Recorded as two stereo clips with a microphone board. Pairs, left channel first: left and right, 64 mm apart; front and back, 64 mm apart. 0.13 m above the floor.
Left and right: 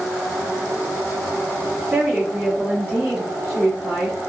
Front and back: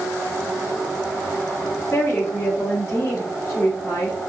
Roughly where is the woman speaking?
Ahead right.